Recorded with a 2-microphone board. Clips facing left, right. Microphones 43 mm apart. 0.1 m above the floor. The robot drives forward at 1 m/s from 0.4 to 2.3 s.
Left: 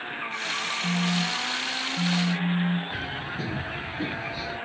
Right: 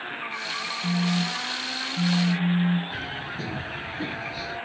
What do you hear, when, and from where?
0.8 s a phone buzzing: 40° right (ahead or behind); by 3.0 s 60° right (ahead or behind)
2.9 s a bird: 5° left (ahead or behind)